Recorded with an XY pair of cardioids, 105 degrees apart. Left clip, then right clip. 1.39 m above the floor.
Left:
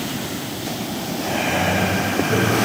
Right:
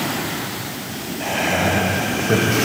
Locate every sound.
1.2 s laughter: 60° right, 1.6 m